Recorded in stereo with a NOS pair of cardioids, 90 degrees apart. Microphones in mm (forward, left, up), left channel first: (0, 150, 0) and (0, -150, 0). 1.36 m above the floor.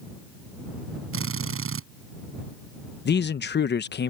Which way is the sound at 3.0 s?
35° left.